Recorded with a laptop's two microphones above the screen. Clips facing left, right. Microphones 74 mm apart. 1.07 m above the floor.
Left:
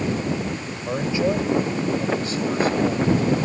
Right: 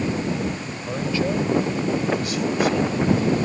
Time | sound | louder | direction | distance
0.9 | a man speaking | left 2 dB | 15° left (ahead or behind) | ?